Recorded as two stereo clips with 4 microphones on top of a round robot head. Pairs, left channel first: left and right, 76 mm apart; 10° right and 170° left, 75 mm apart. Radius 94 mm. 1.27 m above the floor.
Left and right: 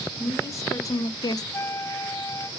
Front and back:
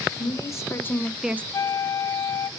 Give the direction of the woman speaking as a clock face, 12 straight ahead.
11 o'clock.